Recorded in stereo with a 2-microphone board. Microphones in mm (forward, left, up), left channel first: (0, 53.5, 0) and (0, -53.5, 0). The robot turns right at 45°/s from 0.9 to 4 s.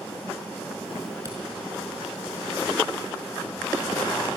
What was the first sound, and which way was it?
A camera shutter, 30° right (ahead or behind).